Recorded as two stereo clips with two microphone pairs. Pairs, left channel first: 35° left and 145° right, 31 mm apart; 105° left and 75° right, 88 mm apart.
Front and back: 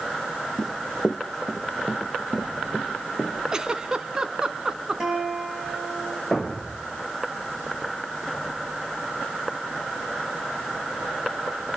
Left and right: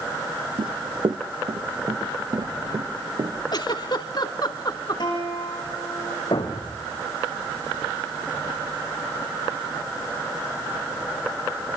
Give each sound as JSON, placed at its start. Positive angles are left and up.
{"t": 0.6, "sound": "running footsteps", "azimuth_deg": -60, "distance_m": 0.8}
{"t": 3.5, "sound": "a giggle", "azimuth_deg": 140, "distance_m": 1.2}
{"t": 5.0, "sound": "a guitar", "azimuth_deg": 140, "distance_m": 9.0}
{"t": 6.3, "sound": "a thud", "azimuth_deg": 135, "distance_m": 4.0}